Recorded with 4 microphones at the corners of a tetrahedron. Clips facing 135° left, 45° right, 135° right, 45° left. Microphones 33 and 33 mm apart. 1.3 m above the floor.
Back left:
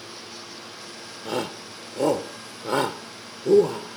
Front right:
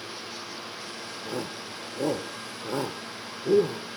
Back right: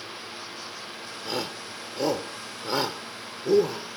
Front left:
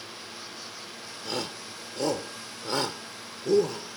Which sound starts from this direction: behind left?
A shout, at 1.2 s.